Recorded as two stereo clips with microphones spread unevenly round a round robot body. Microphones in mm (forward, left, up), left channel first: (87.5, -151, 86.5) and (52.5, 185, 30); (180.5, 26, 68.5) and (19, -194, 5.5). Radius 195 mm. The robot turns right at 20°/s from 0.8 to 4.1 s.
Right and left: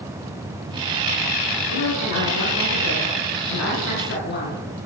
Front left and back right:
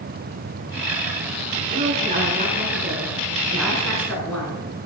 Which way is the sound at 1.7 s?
75° right.